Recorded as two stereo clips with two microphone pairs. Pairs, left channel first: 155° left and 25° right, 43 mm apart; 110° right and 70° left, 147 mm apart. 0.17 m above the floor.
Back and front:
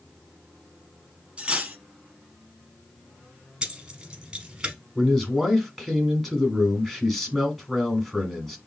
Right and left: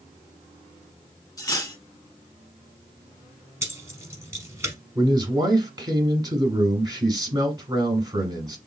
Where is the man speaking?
70° left, 1.1 m.